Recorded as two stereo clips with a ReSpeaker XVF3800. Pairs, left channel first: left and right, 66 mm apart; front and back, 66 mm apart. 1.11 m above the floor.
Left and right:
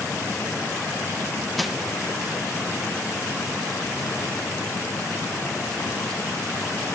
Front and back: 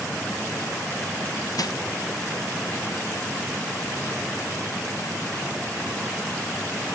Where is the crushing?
Straight ahead, 0.7 m.